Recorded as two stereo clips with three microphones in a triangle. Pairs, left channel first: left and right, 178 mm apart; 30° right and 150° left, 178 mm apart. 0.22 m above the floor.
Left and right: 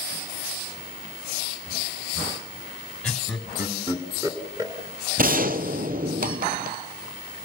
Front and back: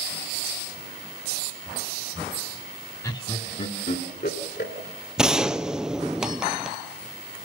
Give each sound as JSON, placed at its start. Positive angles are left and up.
{"t": 3.0, "sound": "laughter", "azimuth_deg": 15, "distance_m": 1.5}
{"t": 5.2, "sound": "a gunshot", "azimuth_deg": -125, "distance_m": 0.9}